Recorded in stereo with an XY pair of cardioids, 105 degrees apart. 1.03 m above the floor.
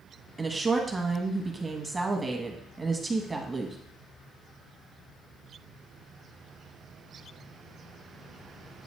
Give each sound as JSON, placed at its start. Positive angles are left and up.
{"t": 0.4, "sound": "a woman speaking", "azimuth_deg": -20, "distance_m": 1.3}